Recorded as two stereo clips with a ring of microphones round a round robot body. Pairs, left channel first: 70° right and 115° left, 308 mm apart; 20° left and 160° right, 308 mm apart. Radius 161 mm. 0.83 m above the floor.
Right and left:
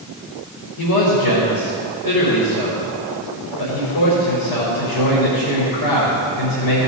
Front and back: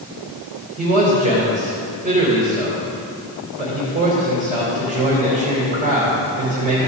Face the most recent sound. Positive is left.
turn(degrees=-90)